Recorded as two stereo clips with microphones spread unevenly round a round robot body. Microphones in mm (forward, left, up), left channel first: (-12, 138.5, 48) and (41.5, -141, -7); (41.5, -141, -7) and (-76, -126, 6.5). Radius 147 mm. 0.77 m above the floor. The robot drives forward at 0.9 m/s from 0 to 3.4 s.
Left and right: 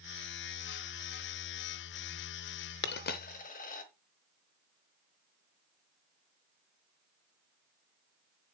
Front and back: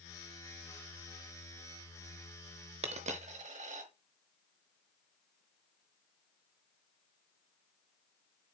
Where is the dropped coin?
145° left, 0.7 m; by 3.9 s 160° left, 1.1 m.